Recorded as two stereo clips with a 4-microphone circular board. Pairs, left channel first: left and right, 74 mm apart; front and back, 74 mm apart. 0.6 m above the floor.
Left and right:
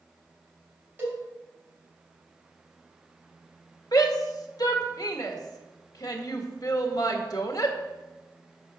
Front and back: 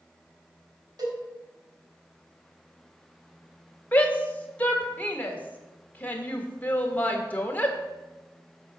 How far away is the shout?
About 1.6 m.